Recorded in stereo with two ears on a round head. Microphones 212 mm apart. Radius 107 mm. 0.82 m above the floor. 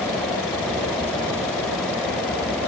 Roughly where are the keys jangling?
I don't hear keys jangling.